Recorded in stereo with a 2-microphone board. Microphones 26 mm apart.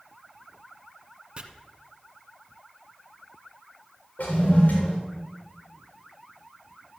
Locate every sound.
1.4 s chopping: 40° right (ahead or behind), 1.1 m
4.2 s a toilet flushing: 75° left (ahead or behind), 3.5 m